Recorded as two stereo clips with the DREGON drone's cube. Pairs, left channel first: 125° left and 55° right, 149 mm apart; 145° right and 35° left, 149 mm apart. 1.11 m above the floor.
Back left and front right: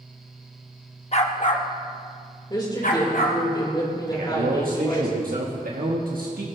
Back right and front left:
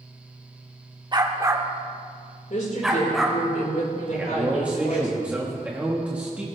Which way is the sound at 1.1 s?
90° left.